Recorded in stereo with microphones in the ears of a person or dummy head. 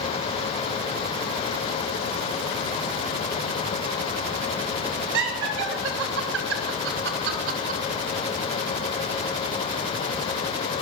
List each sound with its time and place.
5.1 s laughter: 70° right (ahead or behind), 3.5 m; by 7.8 s 50° right (ahead or behind), 2.5 m